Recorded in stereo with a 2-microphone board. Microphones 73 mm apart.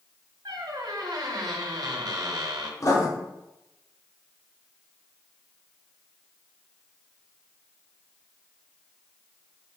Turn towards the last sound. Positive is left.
turn(degrees=50)  # may be behind; listen again after turning